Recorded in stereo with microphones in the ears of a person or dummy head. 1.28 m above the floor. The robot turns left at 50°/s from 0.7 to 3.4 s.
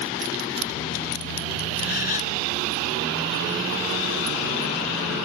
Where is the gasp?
60° left (ahead or behind); by 2.4 s 30° left (ahead or behind).